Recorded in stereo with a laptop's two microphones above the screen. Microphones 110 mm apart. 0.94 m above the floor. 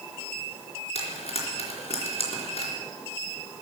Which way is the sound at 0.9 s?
65° left (ahead or behind).